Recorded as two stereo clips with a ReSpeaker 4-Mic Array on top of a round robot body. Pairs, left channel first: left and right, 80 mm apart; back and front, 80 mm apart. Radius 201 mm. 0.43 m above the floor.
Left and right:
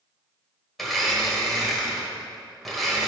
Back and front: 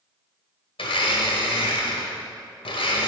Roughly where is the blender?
Behind.